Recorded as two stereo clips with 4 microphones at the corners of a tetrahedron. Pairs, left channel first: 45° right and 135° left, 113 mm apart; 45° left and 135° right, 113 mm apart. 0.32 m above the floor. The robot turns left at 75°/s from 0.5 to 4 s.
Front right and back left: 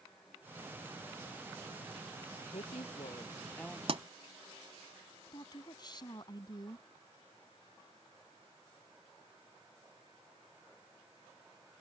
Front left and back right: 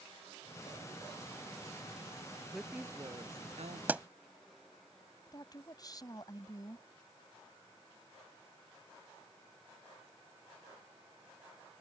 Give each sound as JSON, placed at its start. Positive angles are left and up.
{"t": 2.5, "sound": "a woman speaking", "azimuth_deg": -40}
{"t": 3.9, "sound": "a pop", "azimuth_deg": 155}
{"t": 5.3, "sound": "a woman speaking", "azimuth_deg": -5}